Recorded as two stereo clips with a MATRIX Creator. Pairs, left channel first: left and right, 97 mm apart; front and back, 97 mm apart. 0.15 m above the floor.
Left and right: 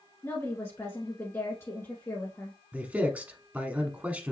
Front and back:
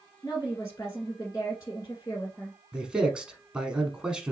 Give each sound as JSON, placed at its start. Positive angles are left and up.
{"t": 0.2, "sound": "a woman speaking", "azimuth_deg": 40, "distance_m": 1.5}
{"t": 2.7, "sound": "a man speaking", "azimuth_deg": -120, "distance_m": 1.1}